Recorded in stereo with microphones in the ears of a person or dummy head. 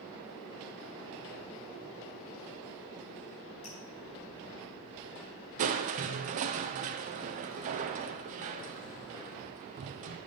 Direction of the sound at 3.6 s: 40° left (ahead or behind).